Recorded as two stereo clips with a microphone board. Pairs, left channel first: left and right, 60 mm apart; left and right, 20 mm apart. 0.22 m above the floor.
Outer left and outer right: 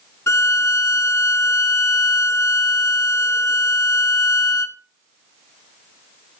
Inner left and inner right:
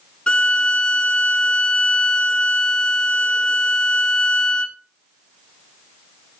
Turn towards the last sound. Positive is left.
turn(degrees=55)  # may be behind; listen again after turning